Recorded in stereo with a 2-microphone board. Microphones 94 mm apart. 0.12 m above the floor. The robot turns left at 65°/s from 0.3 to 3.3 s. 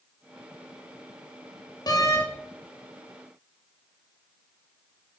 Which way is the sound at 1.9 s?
45° left (ahead or behind).